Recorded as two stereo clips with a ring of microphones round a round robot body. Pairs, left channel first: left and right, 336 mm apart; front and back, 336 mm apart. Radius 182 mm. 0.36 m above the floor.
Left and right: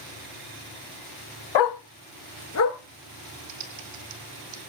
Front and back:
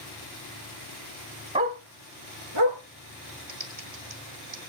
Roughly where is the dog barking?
Left.